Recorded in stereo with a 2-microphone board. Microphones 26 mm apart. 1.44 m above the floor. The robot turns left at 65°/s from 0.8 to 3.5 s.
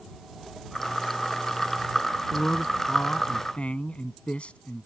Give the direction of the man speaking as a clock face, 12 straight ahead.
7 o'clock.